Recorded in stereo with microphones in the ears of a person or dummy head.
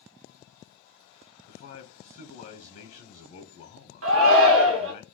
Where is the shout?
80° right, 1.2 m.